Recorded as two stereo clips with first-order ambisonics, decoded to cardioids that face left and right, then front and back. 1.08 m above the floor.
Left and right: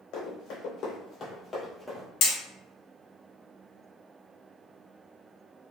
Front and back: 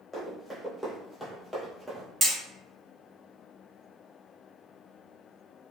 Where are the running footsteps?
85° left, 1.9 m; by 2.1 s 120° right, 1.1 m.